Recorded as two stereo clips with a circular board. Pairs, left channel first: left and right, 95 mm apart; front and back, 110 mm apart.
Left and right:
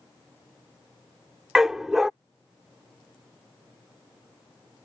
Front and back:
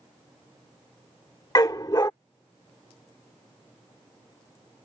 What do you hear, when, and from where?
1.6 s a dog barking: 10° right